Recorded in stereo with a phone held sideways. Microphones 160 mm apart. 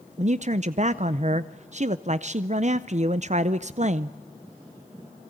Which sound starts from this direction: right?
A man speaking, at 0.2 s.